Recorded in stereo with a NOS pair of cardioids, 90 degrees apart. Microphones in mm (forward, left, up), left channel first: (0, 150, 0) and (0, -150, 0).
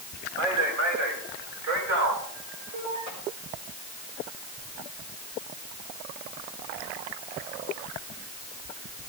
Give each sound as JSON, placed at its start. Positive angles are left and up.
{"t": 0.4, "sound": "a man speaking", "azimuth_deg": -45, "distance_m": 3.0}